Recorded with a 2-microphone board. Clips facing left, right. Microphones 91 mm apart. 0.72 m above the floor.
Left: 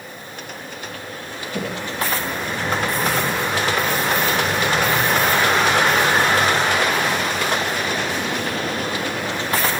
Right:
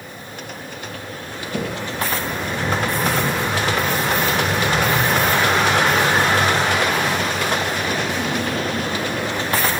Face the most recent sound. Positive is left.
turn(degrees=-55)  # may be behind; listen again after turning